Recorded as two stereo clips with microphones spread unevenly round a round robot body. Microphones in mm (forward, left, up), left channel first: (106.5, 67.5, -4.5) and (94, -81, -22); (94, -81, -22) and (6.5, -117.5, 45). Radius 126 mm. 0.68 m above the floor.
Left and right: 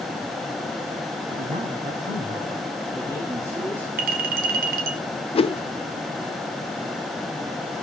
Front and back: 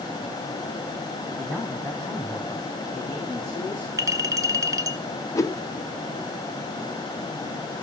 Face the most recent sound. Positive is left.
turn(degrees=30)